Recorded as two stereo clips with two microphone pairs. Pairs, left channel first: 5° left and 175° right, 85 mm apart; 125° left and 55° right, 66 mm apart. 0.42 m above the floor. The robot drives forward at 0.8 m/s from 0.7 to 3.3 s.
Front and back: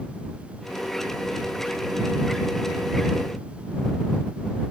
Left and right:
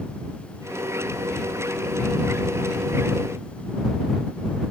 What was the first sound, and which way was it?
Only background noise.